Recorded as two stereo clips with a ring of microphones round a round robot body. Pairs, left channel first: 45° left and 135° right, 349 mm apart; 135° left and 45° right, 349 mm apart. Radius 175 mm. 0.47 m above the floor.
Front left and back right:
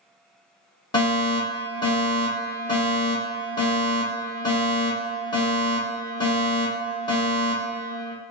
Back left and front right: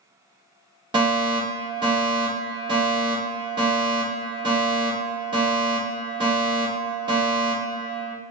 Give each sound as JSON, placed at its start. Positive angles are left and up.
{"t": 0.9, "sound": "a fire alarm", "azimuth_deg": 0, "distance_m": 1.7}